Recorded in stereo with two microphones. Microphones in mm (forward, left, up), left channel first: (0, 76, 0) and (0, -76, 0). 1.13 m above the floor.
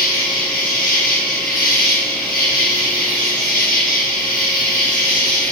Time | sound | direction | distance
0.0 | an insect | 60° left (ahead or behind) | 4.5 m